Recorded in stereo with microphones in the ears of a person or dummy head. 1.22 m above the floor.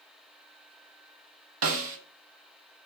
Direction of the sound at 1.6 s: 70° right (ahead or behind).